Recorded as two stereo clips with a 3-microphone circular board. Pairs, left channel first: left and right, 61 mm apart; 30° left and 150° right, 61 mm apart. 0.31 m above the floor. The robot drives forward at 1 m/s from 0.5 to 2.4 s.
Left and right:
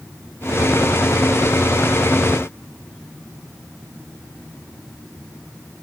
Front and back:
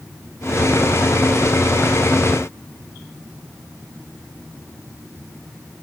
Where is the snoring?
I don't hear snoring.